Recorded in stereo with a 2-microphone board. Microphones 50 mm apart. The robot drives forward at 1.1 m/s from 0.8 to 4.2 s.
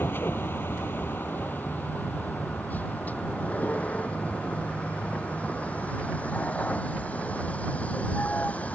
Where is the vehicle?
45° left (ahead or behind); by 8.8 s 30° left (ahead or behind).